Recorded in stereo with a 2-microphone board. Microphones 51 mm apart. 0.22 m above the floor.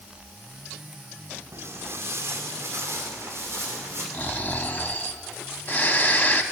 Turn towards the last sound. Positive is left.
turn(degrees=40)  # may be behind; listen again after turning